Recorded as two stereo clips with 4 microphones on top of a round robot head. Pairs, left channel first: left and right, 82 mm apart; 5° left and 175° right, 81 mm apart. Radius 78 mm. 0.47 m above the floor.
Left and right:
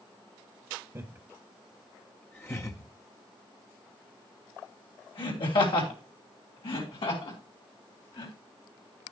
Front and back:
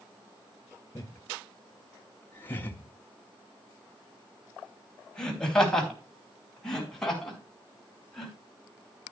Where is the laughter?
50° right, 1.4 m; by 8.3 s 90° left, 6 m.